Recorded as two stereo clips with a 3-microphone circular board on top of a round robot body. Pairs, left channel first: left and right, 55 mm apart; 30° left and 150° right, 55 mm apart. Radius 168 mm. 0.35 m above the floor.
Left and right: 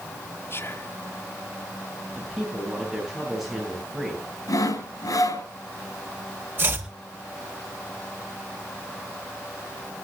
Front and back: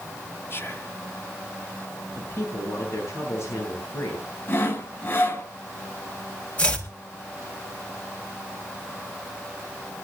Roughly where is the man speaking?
Ahead.